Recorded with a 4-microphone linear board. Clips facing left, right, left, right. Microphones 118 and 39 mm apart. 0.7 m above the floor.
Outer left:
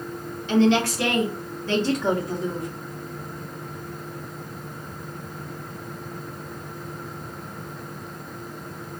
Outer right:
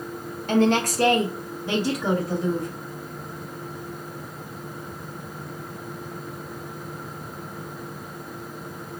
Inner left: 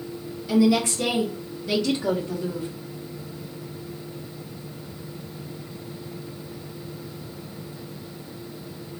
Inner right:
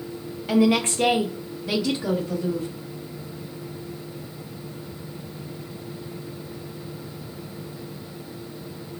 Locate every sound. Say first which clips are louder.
0.5 s a woman speaking: outer left 1 dB, even; 50° right (ahead or behind), 0.9 m; by 2.7 s 5° left (ahead or behind), 1.2 m